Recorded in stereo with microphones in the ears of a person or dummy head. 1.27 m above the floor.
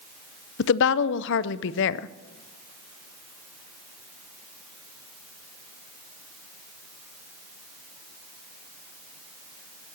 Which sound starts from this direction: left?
A woman speaking, at 0.6 s.